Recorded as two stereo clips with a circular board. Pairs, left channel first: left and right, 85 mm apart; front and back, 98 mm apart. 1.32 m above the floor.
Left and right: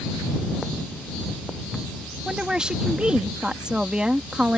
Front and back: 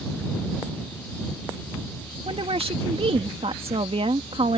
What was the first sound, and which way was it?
A woman speaking, 170° right.